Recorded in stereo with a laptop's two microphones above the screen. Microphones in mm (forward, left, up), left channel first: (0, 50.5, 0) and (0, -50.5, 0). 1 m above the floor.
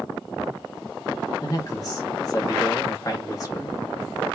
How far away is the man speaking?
About 1.1 m.